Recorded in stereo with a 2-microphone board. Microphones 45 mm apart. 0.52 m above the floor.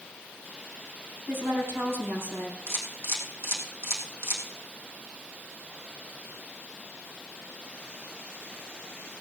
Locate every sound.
1.3 s a woman speaking: 65° right (ahead or behind), 5 m
2.7 s a camera shutter: 65° right (ahead or behind), 3.5 m